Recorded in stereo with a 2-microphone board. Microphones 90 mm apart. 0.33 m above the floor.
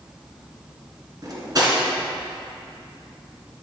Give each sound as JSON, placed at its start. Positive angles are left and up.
{"t": 1.2, "sound": "cutlery clinking", "side_deg": -45, "distance_m": 1.9}